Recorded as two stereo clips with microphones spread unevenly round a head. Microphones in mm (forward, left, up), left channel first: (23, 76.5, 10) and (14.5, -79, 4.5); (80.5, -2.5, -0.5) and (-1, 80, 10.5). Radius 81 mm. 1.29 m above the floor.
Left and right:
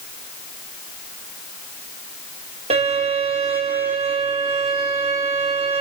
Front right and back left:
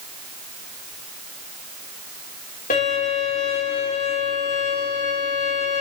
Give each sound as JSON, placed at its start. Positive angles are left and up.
{"t": 2.7, "sound": "a violin", "azimuth_deg": -40, "distance_m": 4.0}